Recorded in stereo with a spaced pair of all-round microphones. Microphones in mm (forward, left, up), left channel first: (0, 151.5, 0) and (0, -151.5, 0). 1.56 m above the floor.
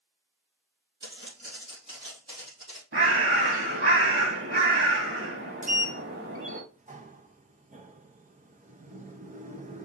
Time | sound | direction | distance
1.0 | footsteps | 45° right (ahead or behind) | 2.5 m
2.9 | a bird | 45° right (ahead or behind) | 1.0 m
5.6 | a sliding door | 25° right (ahead or behind) | 0.7 m